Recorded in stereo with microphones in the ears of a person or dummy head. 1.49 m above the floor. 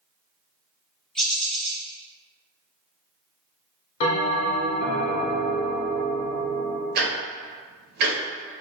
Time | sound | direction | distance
1.1 | a bird | 10° left (ahead or behind) | 0.6 m
4.0 | a bell | 35° left (ahead or behind) | 0.9 m
7.0 | ticking | 65° right (ahead or behind) | 1.0 m